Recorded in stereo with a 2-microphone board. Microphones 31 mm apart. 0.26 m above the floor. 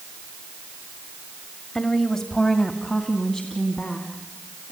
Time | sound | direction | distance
1.8 | a woman speaking | 15° left (ahead or behind) | 1.1 m